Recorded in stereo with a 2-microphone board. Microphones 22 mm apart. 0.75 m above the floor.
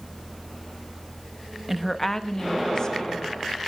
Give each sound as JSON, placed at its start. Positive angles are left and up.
{"t": 1.7, "sound": "a woman speaking", "side_deg": -10, "distance_m": 0.5}